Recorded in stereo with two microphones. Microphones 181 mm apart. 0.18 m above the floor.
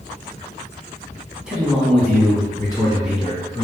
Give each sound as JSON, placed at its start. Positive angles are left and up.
{"t": 1.5, "sound": "a man speaking", "side_deg": -5, "distance_m": 1.4}